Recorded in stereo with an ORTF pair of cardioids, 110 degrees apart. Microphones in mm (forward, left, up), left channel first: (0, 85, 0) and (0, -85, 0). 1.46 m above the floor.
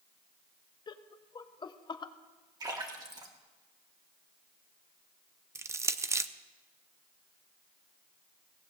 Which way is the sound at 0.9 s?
25° left.